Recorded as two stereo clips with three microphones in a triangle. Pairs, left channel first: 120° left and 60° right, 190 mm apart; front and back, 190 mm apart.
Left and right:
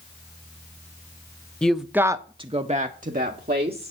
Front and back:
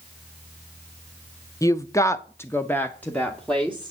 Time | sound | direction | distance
1.6 | a woman speaking | 45° left | 0.6 m